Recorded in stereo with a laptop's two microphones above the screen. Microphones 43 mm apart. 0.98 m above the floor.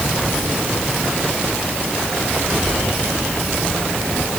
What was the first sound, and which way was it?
Only background noise.